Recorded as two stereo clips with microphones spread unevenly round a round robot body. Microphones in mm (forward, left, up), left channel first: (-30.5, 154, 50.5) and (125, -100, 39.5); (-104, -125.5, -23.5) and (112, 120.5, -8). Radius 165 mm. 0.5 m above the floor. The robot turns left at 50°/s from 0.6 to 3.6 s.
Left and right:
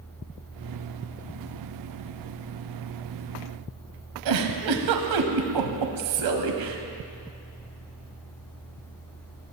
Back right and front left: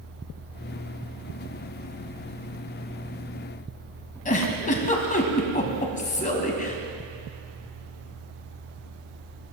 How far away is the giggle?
About 1.6 m.